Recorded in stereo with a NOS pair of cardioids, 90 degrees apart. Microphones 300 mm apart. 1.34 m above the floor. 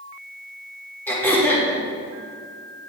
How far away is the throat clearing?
About 1.9 m.